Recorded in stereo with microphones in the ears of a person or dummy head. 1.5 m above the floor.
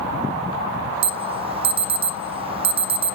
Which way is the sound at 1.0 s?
30° right (ahead or behind).